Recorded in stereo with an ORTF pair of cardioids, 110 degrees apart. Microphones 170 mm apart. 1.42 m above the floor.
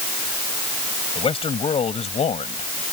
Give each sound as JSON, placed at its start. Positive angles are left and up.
{"t": 1.1, "sound": "a man speaking", "azimuth_deg": 30}